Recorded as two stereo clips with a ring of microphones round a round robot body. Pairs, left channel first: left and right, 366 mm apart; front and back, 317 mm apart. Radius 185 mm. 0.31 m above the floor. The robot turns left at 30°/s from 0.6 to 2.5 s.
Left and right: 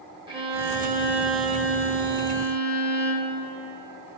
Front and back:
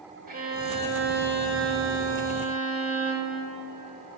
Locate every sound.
0.3 s a violin: 155° right, 1.7 m; by 3.4 s 150° left, 1.7 m